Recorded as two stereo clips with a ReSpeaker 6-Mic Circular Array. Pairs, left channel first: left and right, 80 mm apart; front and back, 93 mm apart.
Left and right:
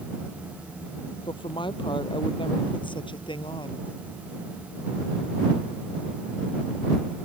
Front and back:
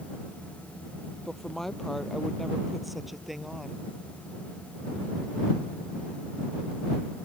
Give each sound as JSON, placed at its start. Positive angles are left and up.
{"t": 1.2, "sound": "a woman speaking", "azimuth_deg": 85}